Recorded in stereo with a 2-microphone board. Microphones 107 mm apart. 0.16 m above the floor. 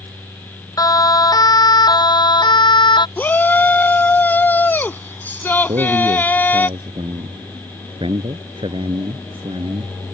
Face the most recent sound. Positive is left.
turn(degrees=-55)  # may be behind; listen again after turning